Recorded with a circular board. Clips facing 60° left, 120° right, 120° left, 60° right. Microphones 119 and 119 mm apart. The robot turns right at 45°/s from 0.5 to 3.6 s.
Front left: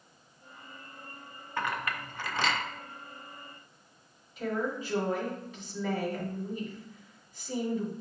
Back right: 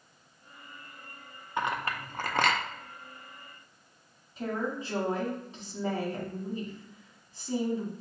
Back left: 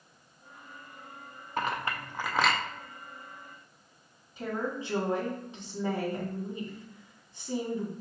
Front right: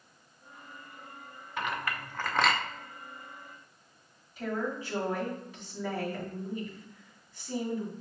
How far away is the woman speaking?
About 1.9 m.